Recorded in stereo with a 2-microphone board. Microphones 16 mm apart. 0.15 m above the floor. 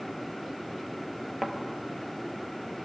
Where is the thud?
10° right (ahead or behind), 1.0 m.